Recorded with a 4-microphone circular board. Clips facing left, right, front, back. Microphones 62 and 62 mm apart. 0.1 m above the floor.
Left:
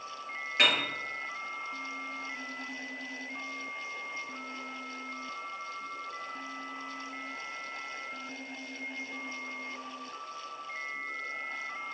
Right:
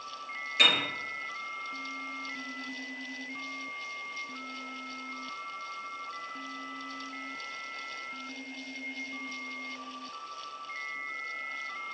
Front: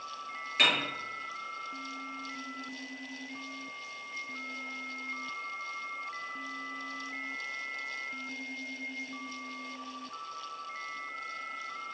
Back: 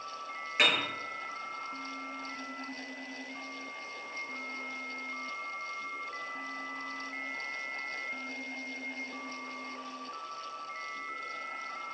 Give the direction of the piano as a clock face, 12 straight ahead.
8 o'clock.